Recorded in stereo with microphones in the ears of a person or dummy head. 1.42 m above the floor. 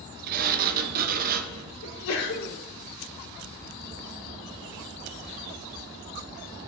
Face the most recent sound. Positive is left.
turn(degrees=85)